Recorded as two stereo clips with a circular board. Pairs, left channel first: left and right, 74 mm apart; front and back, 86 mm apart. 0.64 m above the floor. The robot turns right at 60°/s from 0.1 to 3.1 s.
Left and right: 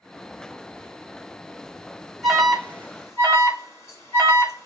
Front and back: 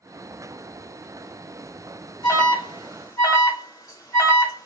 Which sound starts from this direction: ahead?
An alarm, at 2.2 s.